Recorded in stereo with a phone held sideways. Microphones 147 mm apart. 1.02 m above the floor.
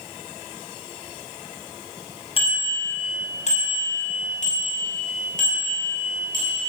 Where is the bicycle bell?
40° left (ahead or behind), 5 m; by 6.6 s 70° left (ahead or behind), 7 m.